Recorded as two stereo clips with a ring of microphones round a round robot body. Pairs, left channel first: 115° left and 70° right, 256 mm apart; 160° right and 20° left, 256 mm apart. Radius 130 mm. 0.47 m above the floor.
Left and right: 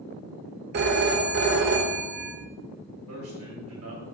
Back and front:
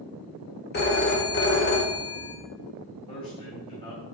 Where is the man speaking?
90° right, 2.5 m.